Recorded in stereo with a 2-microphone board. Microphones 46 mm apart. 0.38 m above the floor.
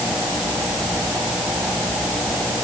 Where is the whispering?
I don't hear whispering.